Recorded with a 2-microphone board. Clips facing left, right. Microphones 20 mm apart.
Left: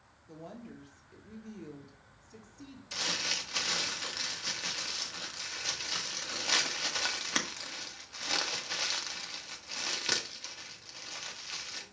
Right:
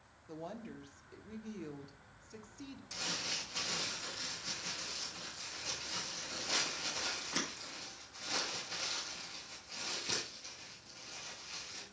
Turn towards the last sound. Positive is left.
turn(degrees=55)  # may be behind; listen again after turning